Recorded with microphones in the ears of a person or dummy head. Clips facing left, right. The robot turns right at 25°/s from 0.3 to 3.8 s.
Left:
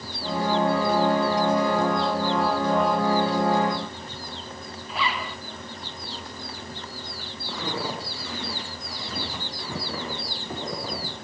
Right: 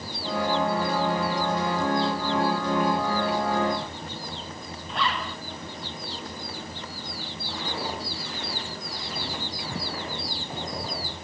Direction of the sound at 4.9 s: Centre (ahead or behind).